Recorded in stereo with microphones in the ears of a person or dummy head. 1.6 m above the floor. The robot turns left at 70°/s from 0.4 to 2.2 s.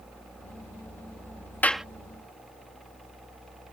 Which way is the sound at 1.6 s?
10° left (ahead or behind).